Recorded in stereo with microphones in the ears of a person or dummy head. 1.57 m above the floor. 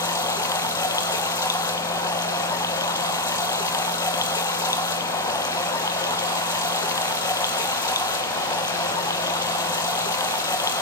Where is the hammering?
No hammering in this recording.